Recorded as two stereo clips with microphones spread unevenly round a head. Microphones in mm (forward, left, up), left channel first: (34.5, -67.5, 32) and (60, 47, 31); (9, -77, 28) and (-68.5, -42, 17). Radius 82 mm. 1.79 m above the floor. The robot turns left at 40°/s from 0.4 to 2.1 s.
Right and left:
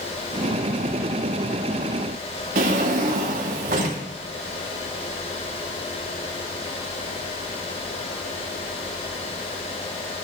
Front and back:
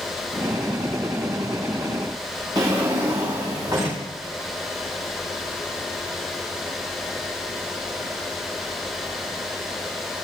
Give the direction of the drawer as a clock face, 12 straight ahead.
9 o'clock.